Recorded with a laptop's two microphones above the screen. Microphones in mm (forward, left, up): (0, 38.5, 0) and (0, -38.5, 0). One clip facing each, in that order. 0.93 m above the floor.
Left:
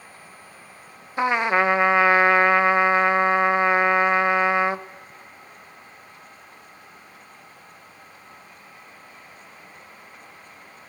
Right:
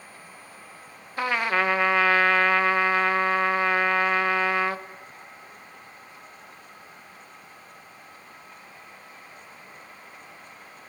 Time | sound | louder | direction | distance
1.2 | a trumpet | left 4 dB | 20° left (ahead or behind) | 0.5 m